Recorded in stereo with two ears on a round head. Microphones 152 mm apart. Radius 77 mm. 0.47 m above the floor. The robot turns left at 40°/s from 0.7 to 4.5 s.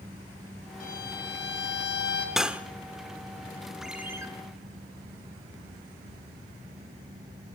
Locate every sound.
0.8 s a violin: 125° left, 3 m; by 2.3 s 65° left, 3 m
2.4 s cutlery clinking: centre (ahead or behind), 0.7 m; by 2.6 s 10° right (ahead or behind), 0.7 m
3.8 s a ringtone: centre (ahead or behind), 2 m; by 4.3 s 20° right (ahead or behind), 2 m